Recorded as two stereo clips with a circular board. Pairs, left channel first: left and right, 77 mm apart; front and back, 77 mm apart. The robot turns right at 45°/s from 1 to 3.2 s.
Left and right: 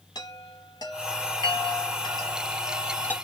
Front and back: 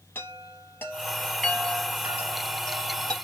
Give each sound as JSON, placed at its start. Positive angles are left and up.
{"t": 0.1, "sound": "a chime", "azimuth_deg": 60, "distance_m": 1.0}